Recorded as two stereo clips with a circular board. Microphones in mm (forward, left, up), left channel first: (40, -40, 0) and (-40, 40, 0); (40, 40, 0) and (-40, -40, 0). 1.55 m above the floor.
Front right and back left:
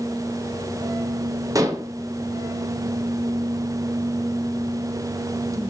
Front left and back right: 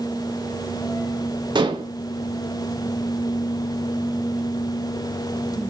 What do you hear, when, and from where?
1.6 s dishes clattering: 170° right, 1.3 m